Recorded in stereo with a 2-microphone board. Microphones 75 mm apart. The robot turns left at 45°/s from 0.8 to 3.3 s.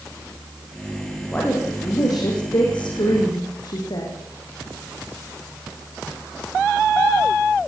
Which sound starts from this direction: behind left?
A woman speaking, at 1.3 s.